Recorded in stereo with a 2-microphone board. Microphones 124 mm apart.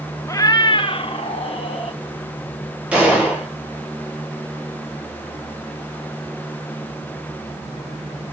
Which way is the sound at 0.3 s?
25° left (ahead or behind).